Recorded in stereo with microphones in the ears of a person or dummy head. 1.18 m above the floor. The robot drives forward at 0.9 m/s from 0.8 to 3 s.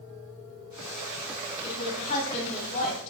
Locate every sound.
1.6 s a woman speaking: 40° left (ahead or behind), 8 m; by 3.1 s 45° left (ahead or behind), 7 m